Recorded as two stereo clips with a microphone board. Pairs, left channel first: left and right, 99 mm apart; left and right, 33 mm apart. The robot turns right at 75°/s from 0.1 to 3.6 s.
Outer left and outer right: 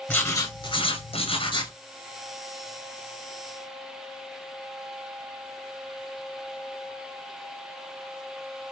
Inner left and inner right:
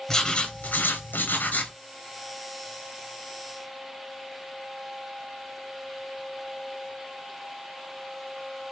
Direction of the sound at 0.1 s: 20° left.